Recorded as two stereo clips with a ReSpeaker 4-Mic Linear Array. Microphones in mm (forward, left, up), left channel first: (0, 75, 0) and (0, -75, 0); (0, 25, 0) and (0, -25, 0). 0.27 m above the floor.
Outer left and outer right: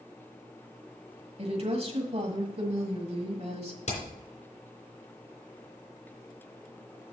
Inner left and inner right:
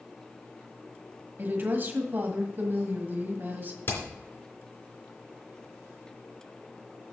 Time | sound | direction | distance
1.4 | a woman speaking | 45° right (ahead or behind) | 1.5 m
3.9 | hammering | 50° left (ahead or behind) | 3 m